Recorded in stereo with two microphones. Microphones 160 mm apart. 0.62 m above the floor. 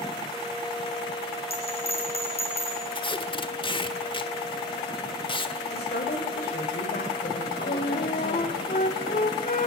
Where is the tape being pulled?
30° left (ahead or behind), 1.3 m.